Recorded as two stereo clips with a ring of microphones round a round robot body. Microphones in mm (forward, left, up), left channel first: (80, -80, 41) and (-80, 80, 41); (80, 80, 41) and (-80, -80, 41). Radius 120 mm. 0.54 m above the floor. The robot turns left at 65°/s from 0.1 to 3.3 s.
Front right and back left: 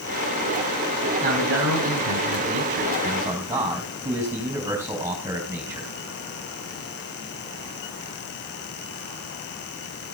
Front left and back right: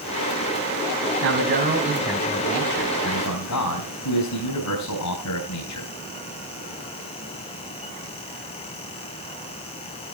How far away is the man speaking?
About 4 m.